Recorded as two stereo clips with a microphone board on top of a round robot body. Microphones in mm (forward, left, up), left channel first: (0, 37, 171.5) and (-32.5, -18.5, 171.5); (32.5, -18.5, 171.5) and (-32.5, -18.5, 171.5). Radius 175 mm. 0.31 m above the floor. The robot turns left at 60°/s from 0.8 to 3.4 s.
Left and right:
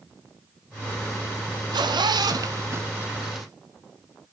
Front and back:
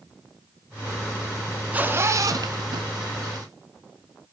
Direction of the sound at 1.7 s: 110° right.